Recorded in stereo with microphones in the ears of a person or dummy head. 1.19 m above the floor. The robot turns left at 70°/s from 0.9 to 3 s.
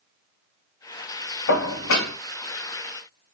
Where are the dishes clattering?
125° left, 1.4 m; by 2.1 s 75° left, 1.4 m.